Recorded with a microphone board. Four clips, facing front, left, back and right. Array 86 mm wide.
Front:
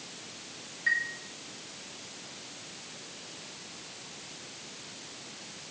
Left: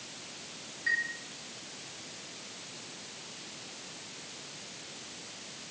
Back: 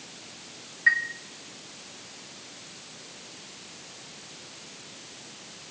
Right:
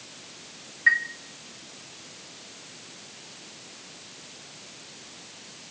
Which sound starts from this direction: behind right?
A chime, at 0.9 s.